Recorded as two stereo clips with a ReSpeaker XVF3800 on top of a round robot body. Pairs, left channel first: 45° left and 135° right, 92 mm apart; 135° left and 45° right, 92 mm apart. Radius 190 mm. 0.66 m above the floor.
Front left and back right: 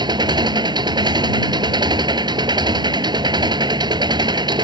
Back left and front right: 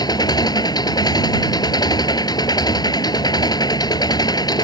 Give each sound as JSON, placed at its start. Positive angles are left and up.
{"t": 0.0, "sound": "an engine running", "azimuth_deg": 180}